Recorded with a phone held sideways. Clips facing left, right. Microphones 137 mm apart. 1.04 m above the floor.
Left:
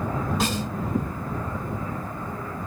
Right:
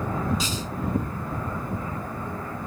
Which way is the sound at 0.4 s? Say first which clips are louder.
Left 4 dB; 60° left (ahead or behind).